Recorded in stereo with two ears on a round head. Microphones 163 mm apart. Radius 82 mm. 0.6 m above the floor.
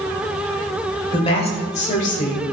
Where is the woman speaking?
30° left (ahead or behind), 2 m; by 2.4 s 50° left (ahead or behind), 1.8 m.